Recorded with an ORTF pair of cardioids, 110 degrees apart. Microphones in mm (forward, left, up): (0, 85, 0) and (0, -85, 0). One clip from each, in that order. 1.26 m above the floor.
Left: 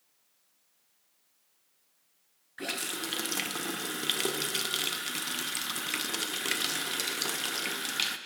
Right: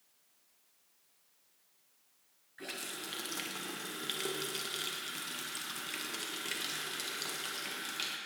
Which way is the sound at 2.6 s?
40° left.